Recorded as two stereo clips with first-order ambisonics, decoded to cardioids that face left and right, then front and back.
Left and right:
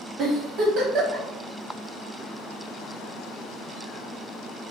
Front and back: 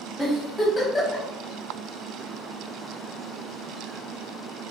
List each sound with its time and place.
0.2 s a giggle: 85° right, 1.1 m